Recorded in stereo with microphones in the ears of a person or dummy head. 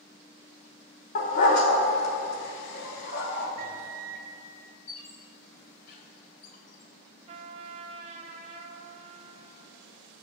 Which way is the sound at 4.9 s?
60° left (ahead or behind).